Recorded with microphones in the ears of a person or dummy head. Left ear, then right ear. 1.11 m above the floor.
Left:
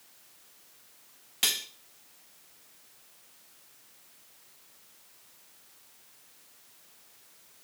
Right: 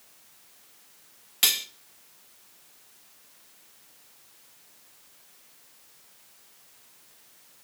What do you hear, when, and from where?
1.4 s cutlery clinking: 5° right (ahead or behind), 0.8 m